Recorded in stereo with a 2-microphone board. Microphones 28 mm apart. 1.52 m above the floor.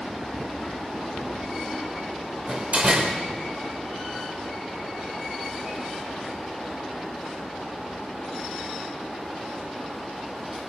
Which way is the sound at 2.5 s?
45° right (ahead or behind).